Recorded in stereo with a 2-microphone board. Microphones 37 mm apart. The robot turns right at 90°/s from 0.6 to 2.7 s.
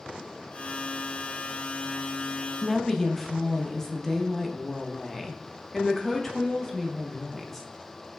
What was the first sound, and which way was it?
A woman speaking, 10° left (ahead or behind).